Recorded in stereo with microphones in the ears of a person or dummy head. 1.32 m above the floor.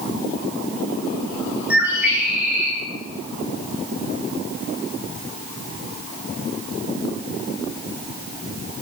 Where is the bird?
5° right (ahead or behind), 0.6 m.